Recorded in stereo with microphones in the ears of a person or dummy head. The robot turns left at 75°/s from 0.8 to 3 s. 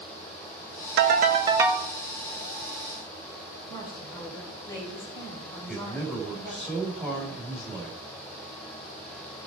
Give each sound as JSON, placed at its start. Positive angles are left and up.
{"t": 1.0, "sound": "a ringtone", "azimuth_deg": -115, "distance_m": 1.2}
{"t": 3.7, "sound": "a woman speaking", "side_deg": 20, "distance_m": 7.5}
{"t": 5.7, "sound": "a man speaking", "side_deg": 5, "distance_m": 4.5}